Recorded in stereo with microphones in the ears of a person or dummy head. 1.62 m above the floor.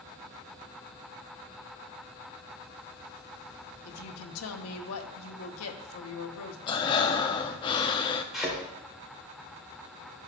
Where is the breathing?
25° left (ahead or behind), 0.6 m.